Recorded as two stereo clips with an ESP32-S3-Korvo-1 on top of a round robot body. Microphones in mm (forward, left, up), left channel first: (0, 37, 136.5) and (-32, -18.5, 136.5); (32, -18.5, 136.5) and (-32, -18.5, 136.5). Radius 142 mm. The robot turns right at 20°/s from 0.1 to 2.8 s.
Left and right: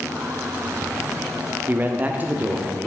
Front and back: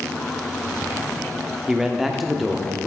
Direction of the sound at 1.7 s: 105° right.